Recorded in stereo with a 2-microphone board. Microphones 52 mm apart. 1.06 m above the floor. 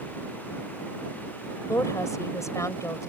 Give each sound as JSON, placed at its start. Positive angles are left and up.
{"t": 1.7, "sound": "a woman speaking", "side_deg": 85}